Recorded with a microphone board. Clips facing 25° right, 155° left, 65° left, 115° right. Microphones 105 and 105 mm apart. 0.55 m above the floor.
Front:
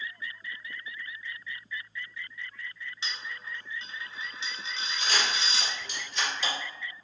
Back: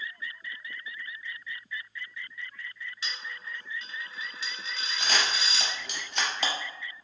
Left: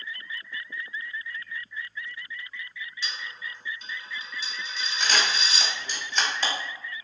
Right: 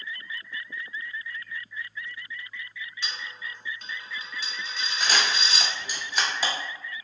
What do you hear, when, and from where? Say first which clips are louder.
3.0 s a dropped coin: front 1 dB, even; 85° right, 0.6 m
5.0 s a camera shutter: back 1 dB, even; 165° left, 0.6 m